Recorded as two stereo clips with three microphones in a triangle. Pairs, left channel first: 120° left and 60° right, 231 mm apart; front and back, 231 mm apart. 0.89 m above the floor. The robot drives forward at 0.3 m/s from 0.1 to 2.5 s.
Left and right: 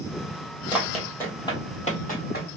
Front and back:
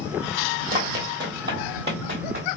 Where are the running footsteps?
140° right, 1.5 m; by 2.6 s 155° left, 1.8 m.